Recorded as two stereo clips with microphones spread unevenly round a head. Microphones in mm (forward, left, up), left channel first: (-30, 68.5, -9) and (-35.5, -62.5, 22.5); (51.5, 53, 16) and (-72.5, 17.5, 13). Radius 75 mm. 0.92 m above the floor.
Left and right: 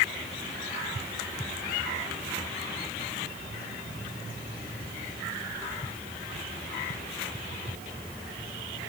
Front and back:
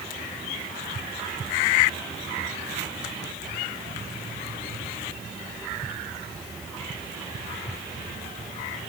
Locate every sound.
Only background noise.